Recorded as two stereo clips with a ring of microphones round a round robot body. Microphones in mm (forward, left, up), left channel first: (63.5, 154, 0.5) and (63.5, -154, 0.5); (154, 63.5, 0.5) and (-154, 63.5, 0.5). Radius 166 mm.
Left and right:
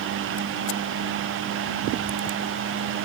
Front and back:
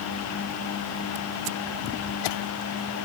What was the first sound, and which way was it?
Only background noise.